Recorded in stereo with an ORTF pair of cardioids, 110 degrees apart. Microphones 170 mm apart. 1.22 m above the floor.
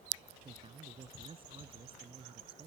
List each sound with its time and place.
0.4 s a man speaking: 30° right